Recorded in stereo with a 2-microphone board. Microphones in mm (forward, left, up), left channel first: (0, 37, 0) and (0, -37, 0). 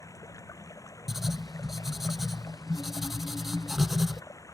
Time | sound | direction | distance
0.0 | running water | 45° left (ahead or behind) | ?
1.1 | writing | 5° right (ahead or behind) | ?